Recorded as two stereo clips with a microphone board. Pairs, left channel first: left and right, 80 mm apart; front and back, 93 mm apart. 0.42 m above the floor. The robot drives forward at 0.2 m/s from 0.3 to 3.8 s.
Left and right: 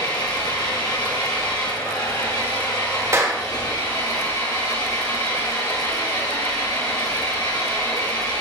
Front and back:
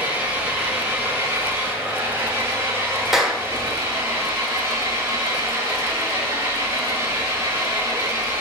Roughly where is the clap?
Right.